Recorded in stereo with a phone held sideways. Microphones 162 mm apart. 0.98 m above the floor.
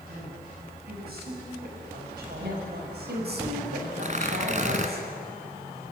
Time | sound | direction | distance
0.1 | a woman speaking | 75° right (ahead or behind) | 6.5 m
2.4 | a woman speaking | 80° right | 5.5 m
4.0 | tearing paper | 50° right (ahead or behind) | 2.0 m